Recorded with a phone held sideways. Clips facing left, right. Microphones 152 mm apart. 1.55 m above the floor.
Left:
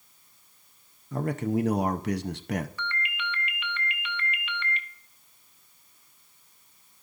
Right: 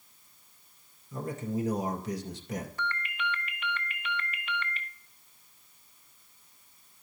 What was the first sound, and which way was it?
A man speaking, 75° left (ahead or behind).